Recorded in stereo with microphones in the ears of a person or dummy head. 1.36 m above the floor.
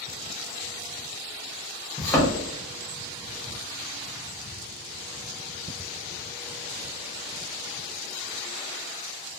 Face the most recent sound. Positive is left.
turn(degrees=10)  # may be behind; listen again after turning